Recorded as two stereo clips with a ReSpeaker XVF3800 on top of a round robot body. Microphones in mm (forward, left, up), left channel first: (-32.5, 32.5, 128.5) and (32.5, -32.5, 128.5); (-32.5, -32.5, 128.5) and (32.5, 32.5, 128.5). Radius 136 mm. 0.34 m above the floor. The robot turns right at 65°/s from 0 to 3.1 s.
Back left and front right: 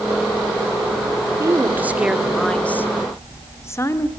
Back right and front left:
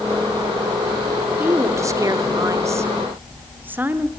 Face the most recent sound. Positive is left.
turn(degrees=100)